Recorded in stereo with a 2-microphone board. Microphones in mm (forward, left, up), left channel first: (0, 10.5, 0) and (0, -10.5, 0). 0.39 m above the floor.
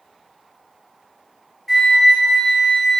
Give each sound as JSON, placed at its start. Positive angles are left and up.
{"t": 1.7, "sound": "a flute", "side_deg": 10, "distance_m": 1.3}